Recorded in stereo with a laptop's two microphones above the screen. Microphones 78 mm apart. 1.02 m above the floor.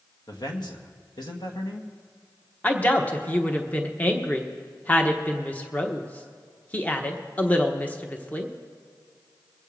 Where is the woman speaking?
20° left (ahead or behind), 1.0 m.